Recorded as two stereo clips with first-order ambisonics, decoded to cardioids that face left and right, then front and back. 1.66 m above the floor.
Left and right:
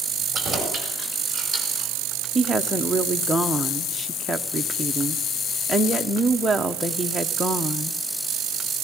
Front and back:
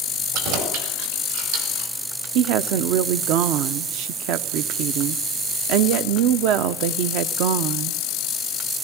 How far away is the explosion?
No explosion in this recording.